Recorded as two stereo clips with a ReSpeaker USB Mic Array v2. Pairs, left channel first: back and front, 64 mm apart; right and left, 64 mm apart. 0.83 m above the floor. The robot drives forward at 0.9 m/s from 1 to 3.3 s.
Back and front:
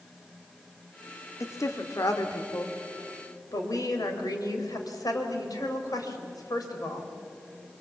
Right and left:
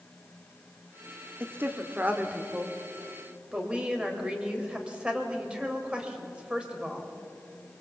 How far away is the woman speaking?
About 1.4 m.